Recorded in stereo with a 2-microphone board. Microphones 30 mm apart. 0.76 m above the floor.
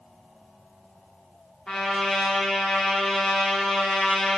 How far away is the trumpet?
About 1.2 m.